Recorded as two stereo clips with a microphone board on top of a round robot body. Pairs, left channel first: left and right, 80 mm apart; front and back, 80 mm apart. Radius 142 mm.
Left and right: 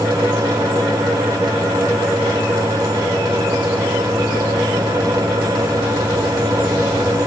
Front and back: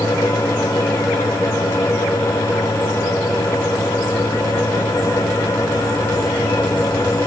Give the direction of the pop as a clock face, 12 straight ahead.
I don't hear a pop.